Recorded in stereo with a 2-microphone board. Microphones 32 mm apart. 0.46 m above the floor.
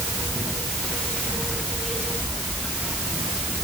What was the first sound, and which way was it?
Only background noise.